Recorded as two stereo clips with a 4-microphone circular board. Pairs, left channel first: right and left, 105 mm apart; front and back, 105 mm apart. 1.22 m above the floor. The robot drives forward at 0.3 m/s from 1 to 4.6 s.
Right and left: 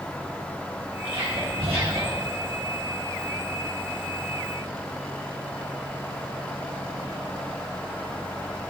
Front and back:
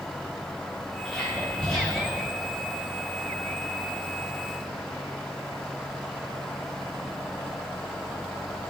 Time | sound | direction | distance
1.1 | whispering | 80° left | 2.5 m